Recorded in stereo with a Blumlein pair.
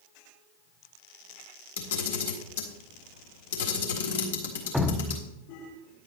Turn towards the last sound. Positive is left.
turn(degrees=0)